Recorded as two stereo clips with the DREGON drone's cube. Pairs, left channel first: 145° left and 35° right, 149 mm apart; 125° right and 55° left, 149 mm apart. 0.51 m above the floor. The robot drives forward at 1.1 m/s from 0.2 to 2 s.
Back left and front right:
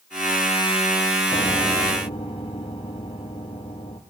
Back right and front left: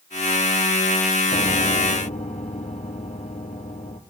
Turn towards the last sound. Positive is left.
turn(degrees=-160)